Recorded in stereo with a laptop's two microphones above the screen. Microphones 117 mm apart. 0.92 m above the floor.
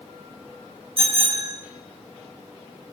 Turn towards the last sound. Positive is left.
turn(degrees=-50)  # may be behind; listen again after turning